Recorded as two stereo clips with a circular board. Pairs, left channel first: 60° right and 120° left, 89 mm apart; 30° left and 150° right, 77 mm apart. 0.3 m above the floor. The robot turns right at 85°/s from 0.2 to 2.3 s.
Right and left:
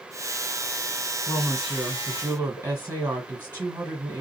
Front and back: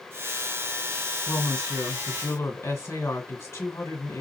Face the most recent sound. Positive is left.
turn(degrees=65)